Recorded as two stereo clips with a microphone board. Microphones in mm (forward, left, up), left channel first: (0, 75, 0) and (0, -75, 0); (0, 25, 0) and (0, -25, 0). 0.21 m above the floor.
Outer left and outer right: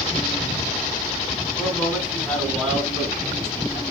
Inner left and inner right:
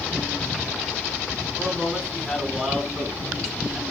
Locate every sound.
1.6 s a man speaking: 5° left (ahead or behind), 1.9 m